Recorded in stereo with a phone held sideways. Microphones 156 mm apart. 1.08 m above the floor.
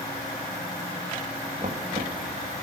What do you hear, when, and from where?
1.6 s knocking: 60° right (ahead or behind), 1.6 m